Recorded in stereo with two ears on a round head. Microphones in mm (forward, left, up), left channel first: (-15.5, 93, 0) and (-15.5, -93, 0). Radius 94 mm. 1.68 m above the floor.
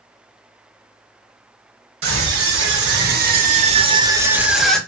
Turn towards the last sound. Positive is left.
turn(degrees=5)  # may be behind; listen again after turning